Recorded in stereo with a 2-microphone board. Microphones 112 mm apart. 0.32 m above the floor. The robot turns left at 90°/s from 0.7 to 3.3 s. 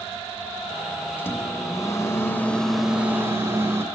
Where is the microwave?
15° left (ahead or behind), 0.7 m; by 3.9 s 20° right (ahead or behind), 0.7 m.